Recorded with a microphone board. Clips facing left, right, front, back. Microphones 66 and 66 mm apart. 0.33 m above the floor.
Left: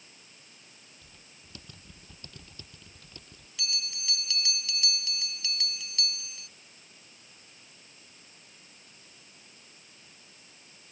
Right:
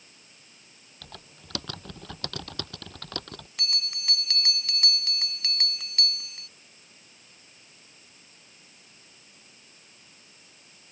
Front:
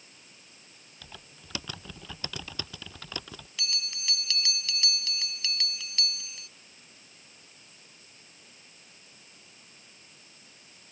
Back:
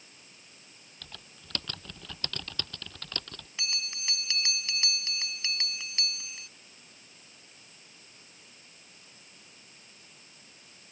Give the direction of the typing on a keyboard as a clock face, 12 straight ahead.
3 o'clock.